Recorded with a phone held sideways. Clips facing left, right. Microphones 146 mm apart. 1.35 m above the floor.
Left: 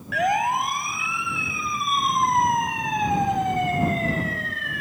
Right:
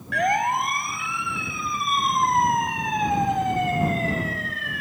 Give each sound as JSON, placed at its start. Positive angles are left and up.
{"t": 0.1, "sound": "a siren", "side_deg": 0}